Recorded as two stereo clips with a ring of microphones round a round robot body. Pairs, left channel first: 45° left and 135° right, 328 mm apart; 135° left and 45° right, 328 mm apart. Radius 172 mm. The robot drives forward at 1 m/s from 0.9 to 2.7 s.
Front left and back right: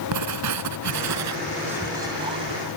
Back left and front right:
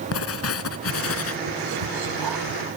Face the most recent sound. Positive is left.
turn(degrees=-70)